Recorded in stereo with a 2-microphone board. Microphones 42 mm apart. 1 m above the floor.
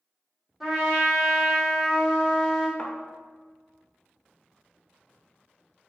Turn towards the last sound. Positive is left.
turn(degrees=30)  # may be behind; listen again after turning